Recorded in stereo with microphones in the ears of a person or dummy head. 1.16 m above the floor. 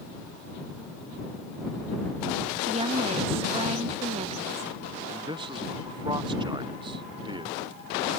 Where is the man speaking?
20° right (ahead or behind).